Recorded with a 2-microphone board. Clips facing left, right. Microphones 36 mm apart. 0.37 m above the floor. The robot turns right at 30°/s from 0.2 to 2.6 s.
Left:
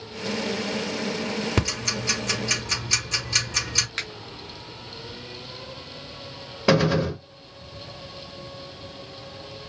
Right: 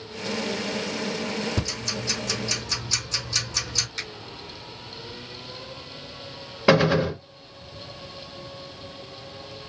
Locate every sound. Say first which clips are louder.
1.6 s ticking: left 3 dB; 70° left (ahead or behind), 4.5 m; by 3.9 s 55° left (ahead or behind), 4.5 m
4.0 s a finger snap: left 3 dB; 40° left (ahead or behind), 1.6 m
6.7 s a gunshot: right 2 dB; 10° right (ahead or behind), 1.0 m